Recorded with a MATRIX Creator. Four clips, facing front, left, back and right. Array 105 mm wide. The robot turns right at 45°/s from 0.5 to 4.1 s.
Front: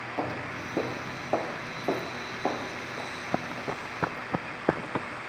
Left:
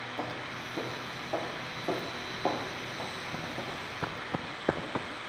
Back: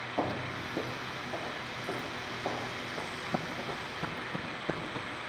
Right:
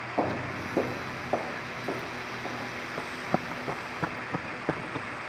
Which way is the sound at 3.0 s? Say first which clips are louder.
Right 12 dB, front 4 dB; 80° right.